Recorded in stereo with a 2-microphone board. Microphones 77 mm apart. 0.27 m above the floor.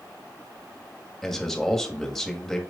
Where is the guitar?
No guitar in this recording.